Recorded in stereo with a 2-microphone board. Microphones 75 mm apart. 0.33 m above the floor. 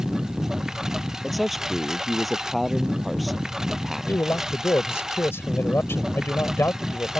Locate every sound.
0.0 s a lawn mower: 5° right (ahead or behind)
1.2 s a man speaking: centre (ahead or behind)
4.1 s a man speaking: 35° left (ahead or behind)